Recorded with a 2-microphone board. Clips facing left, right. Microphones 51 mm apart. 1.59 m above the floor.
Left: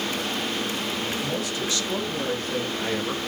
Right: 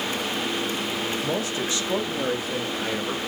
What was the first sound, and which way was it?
A man speaking, 30° right (ahead or behind).